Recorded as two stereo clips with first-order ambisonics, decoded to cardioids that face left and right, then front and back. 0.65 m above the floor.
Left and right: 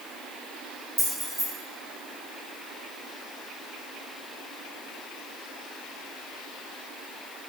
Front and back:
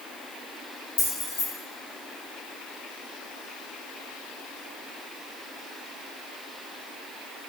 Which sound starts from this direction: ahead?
Keys jangling, at 1.0 s.